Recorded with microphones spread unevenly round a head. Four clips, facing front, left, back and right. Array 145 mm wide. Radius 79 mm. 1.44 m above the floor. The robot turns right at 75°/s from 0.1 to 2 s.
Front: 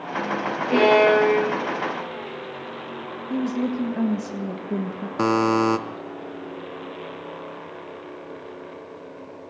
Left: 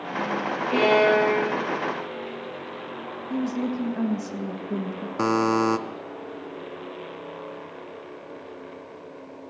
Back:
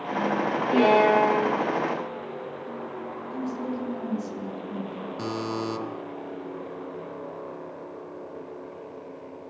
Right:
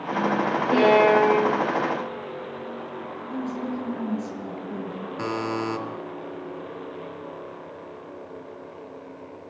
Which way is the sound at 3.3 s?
30° left.